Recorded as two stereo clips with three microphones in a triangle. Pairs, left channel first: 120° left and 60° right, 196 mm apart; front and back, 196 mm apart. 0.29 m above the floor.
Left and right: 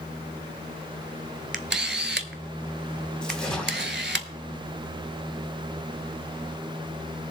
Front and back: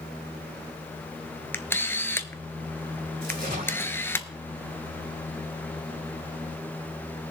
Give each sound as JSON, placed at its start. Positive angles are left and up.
{"t": 1.5, "sound": "a camera shutter", "azimuth_deg": -80, "distance_m": 0.7}
{"t": 3.2, "sound": "a splash", "azimuth_deg": -155, "distance_m": 2.0}